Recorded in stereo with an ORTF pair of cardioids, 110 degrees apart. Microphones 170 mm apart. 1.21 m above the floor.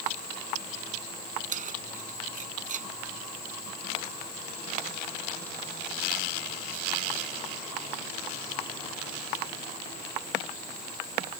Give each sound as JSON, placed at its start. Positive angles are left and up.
{"t": 1.5, "sound": "keys jangling", "azimuth_deg": -50}